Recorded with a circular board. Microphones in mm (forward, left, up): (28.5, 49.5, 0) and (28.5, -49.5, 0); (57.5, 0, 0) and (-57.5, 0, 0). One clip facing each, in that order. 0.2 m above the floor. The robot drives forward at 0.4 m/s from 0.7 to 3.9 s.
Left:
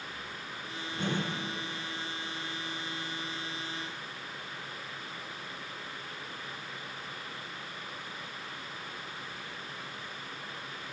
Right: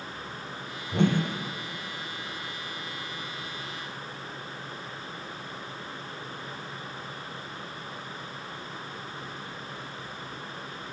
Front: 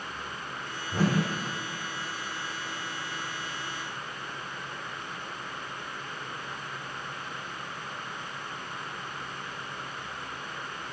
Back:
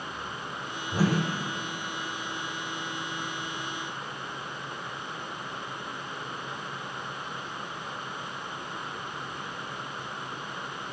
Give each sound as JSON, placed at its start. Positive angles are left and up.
{"t": 0.9, "sound": "a whoosh", "azimuth_deg": -95, "distance_m": 8.5}